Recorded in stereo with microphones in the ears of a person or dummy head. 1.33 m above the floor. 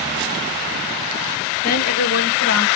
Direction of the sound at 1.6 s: 45° left (ahead or behind).